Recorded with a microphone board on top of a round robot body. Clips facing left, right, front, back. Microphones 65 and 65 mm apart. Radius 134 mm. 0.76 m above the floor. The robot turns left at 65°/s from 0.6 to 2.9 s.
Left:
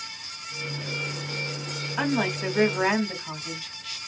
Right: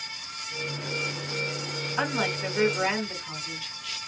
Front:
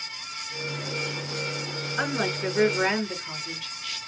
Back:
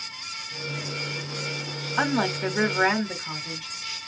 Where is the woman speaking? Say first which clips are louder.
Left 2 dB, back 3 dB; straight behind, 1.6 m; by 4.0 s 120° left, 1.6 m.